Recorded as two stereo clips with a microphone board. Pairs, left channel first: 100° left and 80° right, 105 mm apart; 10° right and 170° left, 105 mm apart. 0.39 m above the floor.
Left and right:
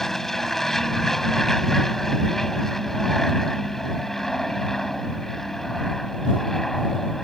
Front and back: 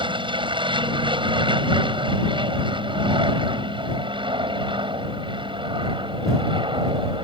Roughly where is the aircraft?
Behind.